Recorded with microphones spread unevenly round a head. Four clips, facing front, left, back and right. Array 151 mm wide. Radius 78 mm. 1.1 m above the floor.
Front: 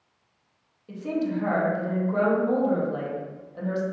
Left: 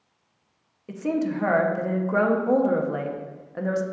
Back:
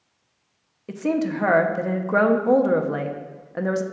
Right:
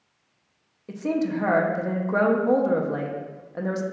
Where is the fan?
No fan in this recording.